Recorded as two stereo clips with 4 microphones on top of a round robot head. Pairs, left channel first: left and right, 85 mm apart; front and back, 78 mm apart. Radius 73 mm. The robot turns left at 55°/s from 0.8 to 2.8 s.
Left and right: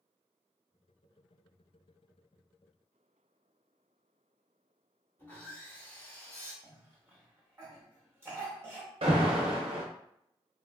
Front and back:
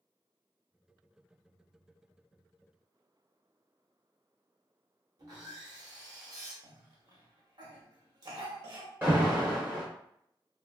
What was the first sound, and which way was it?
Sawing, 160° left.